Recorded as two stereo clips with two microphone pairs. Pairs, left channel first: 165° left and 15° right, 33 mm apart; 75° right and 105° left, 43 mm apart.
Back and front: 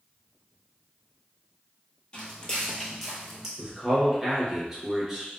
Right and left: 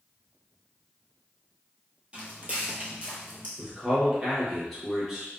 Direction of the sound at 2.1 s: 145° left.